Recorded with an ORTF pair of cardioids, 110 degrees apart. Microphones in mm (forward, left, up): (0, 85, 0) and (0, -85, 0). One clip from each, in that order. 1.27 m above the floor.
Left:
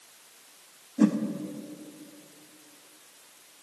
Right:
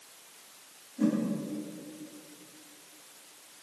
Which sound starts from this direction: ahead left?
A whoosh, at 1.0 s.